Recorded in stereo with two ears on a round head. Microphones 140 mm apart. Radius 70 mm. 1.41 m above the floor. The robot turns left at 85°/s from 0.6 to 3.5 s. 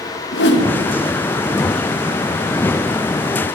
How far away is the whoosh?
About 2 m.